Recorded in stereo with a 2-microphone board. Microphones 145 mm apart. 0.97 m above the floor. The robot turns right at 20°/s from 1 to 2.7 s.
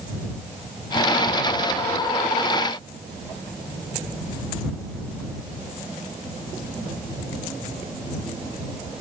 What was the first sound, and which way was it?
Only background noise.